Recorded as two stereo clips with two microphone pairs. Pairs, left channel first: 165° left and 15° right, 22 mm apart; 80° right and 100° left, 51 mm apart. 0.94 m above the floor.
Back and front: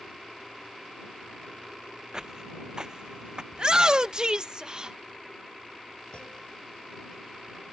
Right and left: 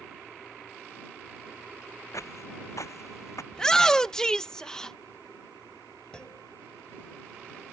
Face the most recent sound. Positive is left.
turn(degrees=-155)